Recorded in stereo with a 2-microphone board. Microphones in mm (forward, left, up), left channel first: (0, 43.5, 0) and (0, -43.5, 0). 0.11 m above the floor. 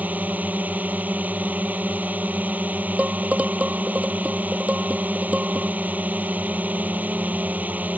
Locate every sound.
0.0 s a drone: 20° right (ahead or behind)
3.0 s dishes clattering: 15° right (ahead or behind)